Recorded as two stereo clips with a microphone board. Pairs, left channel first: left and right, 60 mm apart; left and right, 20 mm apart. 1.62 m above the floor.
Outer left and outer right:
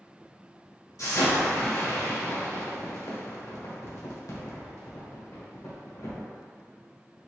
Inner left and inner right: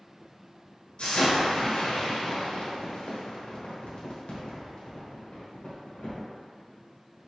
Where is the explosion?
65° left (ahead or behind), 1.2 m.